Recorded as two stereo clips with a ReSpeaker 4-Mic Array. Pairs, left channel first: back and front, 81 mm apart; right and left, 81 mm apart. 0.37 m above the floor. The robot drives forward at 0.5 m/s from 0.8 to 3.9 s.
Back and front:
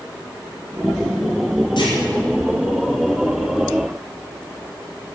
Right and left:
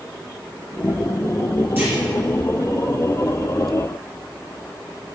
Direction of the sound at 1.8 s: 155° left.